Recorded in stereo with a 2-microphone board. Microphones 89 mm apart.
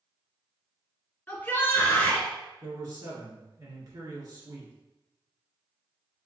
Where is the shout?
20° left (ahead or behind), 1.9 m; by 2.3 s 15° left (ahead or behind), 1.7 m.